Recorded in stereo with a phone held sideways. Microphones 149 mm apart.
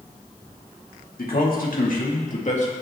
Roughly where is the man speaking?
Left.